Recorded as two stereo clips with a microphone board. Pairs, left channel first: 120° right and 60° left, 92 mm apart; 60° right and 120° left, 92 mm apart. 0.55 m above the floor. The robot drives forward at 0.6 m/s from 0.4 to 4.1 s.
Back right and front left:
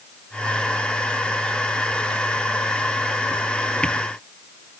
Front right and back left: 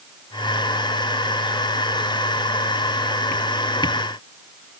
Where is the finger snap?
I don't hear a finger snap.